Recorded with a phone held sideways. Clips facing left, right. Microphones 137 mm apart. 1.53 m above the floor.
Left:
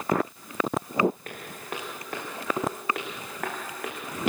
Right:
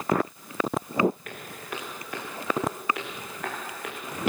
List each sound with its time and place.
1.2 s footsteps: 40° left (ahead or behind), 6.5 m; by 4.0 s 70° left (ahead or behind), 6 m